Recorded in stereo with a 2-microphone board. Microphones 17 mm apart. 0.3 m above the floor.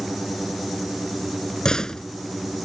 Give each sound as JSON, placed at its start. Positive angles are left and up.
{"t": 1.6, "sound": "a door slam", "side_deg": 50}